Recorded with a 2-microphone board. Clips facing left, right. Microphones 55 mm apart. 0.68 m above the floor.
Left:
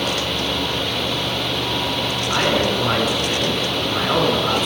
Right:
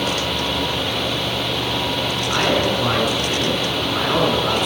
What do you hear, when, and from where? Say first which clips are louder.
2.3 s a man speaking: even; 5° right (ahead or behind), 5.5 m